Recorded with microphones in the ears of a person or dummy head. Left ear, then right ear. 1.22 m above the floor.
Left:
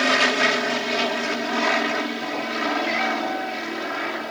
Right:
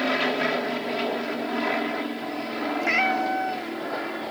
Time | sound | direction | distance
0.0 | an aircraft | 65° left (ahead or behind) | ?
2.8 | a cat meowing | 15° right (ahead or behind) | ?